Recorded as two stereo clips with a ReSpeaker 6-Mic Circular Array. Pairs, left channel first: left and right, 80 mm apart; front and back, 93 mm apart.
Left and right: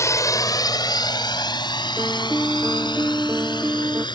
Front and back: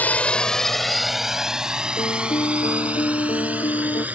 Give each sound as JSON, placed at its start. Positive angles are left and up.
{"t": 0.0, "sound": "a drone", "azimuth_deg": 65}
{"t": 2.0, "sound": "a piano", "azimuth_deg": -25}